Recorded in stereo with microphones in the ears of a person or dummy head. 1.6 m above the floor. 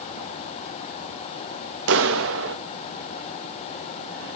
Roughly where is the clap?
Right.